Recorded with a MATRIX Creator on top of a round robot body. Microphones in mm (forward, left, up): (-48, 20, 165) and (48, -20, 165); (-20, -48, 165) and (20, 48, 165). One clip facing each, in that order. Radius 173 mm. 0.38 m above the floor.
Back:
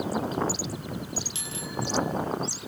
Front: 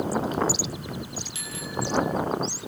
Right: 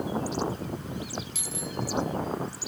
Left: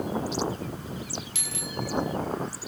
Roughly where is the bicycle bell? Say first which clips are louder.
Front 4 dB, even; left.